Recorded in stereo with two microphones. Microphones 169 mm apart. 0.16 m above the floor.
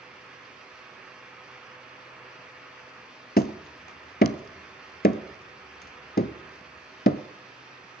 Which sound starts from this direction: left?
Hammering, at 3.4 s.